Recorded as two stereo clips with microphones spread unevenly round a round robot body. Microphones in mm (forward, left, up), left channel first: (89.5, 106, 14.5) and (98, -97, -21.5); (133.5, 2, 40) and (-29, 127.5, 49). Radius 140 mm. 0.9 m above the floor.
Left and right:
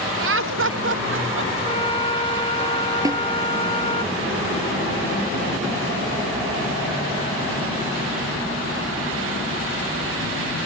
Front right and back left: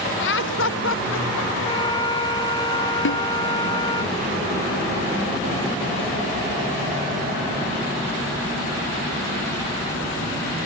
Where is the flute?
30° left.